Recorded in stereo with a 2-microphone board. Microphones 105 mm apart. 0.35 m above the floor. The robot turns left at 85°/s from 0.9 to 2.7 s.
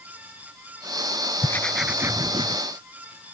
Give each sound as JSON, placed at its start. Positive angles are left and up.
{"t": 1.4, "sound": "writing", "azimuth_deg": 30}